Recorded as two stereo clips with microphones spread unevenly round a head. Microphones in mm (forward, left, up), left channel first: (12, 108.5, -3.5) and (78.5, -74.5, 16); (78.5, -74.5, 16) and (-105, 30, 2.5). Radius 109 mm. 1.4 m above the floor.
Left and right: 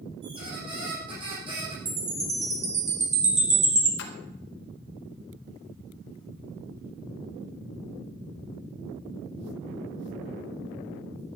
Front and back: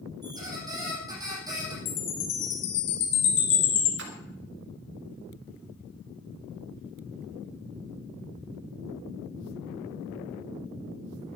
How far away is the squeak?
About 7 m.